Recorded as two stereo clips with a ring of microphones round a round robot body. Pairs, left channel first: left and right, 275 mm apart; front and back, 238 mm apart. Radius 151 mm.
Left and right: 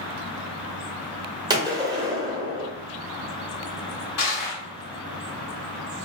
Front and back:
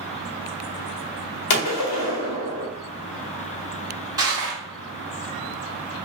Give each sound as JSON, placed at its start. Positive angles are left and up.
{"t": 1.5, "sound": "a gunshot", "azimuth_deg": -15, "distance_m": 0.9}
{"t": 4.2, "sound": "crushing", "azimuth_deg": 105, "distance_m": 1.7}